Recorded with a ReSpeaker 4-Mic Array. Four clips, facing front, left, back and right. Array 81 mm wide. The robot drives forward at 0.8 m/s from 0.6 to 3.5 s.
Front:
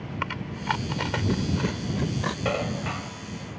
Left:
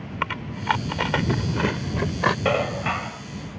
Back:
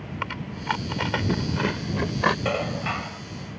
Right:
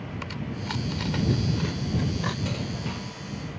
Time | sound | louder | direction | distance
0.2 | chewing | left 10 dB, even | 90° left | ?
2.5 | dishes clattering | left 10 dB, back 1 dB | 90° left | ?